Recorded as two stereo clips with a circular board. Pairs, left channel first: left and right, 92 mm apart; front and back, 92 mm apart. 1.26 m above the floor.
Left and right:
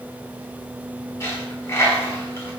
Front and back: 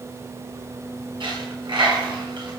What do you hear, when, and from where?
1.2 s a dropped coin: 150° left, 5 m